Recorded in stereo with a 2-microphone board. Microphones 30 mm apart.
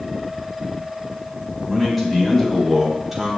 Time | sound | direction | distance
1.7 | a man speaking | centre (ahead or behind) | 4 m